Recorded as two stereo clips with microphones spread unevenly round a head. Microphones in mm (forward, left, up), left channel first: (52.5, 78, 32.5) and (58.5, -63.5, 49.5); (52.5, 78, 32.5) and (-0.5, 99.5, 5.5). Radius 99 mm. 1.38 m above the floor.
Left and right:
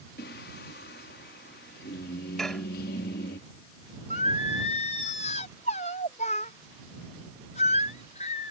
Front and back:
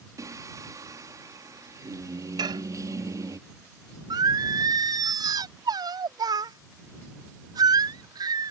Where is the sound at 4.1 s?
150° left.